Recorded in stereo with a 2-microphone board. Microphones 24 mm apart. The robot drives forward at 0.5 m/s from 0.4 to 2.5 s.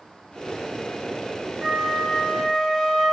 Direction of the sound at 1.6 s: 30° right (ahead or behind).